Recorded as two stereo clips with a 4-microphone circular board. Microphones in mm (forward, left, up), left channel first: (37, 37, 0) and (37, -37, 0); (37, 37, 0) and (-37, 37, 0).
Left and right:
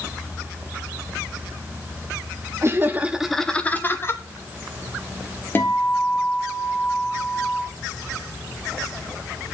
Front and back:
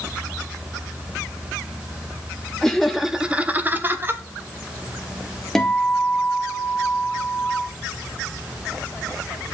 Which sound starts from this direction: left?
A guitar, at 5.5 s.